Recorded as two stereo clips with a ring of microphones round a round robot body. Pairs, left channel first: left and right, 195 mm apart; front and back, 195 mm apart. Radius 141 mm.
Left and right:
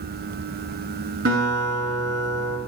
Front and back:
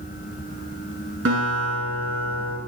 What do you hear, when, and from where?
1.2 s a guitar: 145° right, 6.5 m